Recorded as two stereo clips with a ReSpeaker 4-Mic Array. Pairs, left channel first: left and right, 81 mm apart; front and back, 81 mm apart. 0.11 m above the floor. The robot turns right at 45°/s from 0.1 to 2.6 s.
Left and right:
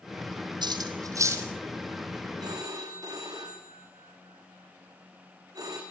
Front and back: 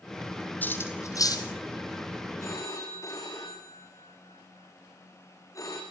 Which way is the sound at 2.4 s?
55° right.